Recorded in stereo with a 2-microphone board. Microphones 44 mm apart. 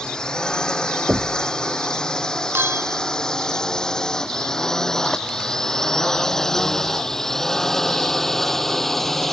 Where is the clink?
60° right (ahead or behind).